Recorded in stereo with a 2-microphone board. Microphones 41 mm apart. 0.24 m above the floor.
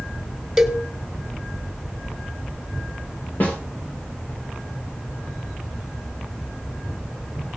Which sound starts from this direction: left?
A snare drum, at 3.4 s.